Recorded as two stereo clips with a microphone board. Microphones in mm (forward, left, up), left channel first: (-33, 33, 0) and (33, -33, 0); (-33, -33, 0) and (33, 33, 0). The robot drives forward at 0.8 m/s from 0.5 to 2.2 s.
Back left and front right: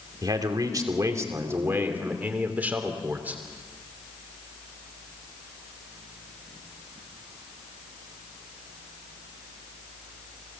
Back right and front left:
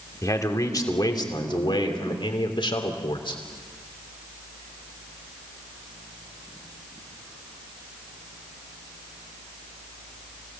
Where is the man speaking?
85° right, 2.5 m; by 3.4 s 115° right, 3 m.